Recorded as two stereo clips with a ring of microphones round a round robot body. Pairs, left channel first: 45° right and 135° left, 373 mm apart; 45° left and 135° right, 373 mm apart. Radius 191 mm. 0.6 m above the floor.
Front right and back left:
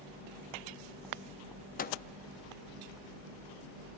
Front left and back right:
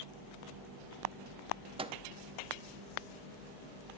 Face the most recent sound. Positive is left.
turn(degrees=-80)